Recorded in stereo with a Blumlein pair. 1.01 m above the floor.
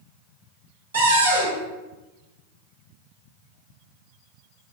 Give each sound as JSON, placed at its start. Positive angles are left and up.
{"t": 0.9, "sound": "a cupboard door", "azimuth_deg": -65, "distance_m": 0.9}